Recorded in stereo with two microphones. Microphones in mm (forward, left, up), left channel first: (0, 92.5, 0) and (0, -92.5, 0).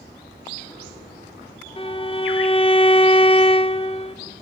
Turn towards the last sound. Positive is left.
turn(degrees=30)  # may be behind; listen again after turning